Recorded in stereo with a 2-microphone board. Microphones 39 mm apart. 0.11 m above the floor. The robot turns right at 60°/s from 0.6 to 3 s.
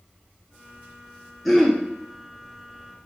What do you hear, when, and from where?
1.4 s throat clearing: centre (ahead or behind), 0.7 m; by 1.8 s 10° left (ahead or behind), 0.7 m